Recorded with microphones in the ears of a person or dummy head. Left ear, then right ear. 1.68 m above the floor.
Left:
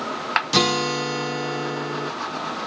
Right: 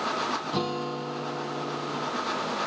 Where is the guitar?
65° left (ahead or behind), 0.5 m.